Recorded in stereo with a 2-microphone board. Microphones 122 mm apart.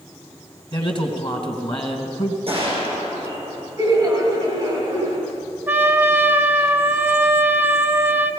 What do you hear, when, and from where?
0.7 s a man speaking: 40° left (ahead or behind), 2.5 m
2.5 s a gunshot: 45° right (ahead or behind), 7 m
3.8 s laughter: 30° right (ahead or behind), 1.9 m
5.7 s a trumpet: 20° right (ahead or behind), 0.8 m